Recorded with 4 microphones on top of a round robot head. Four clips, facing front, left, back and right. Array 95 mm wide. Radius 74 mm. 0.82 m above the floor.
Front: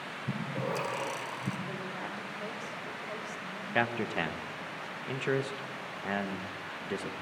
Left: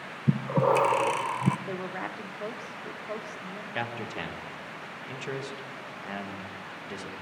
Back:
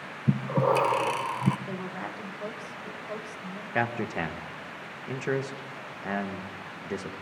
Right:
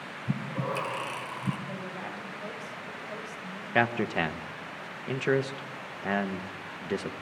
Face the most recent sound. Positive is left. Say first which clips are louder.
# right 9 dB, back 2 dB
turn(degrees=-100)